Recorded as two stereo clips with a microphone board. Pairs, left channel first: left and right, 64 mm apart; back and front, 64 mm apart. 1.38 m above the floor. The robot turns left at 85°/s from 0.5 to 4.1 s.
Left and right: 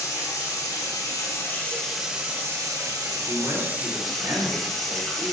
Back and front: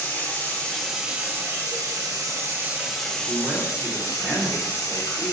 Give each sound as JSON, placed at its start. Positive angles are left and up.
{"t": 0.0, "sound": "running water", "azimuth_deg": 120, "distance_m": 2.5}
{"t": 3.3, "sound": "a man speaking", "azimuth_deg": -30, "distance_m": 3.5}